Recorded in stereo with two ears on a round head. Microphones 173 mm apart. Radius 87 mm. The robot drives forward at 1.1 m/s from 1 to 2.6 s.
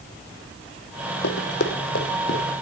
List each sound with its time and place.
1.2 s running footsteps: 65° left (ahead or behind), 2 m; by 2.4 s 50° left (ahead or behind), 3.5 m